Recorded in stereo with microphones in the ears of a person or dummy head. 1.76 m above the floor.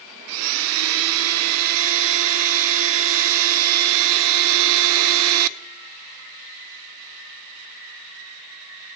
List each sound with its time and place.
0.3 s a blender: 75° right (ahead or behind), 0.6 m